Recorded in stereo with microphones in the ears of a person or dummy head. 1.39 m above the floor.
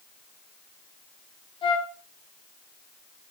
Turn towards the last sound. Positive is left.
turn(degrees=25)  # may be behind; listen again after turning